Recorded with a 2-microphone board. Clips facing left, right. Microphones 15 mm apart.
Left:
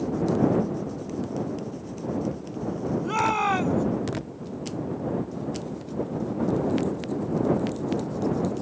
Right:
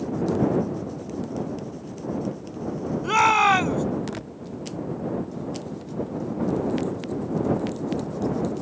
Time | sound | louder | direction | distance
3.0 | a shout | right 7 dB | 35° right (ahead or behind) | ?